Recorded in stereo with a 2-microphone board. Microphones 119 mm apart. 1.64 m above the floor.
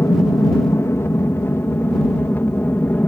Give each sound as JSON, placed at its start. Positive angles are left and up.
{"t": 0.0, "sound": "an aircraft", "side_deg": 25}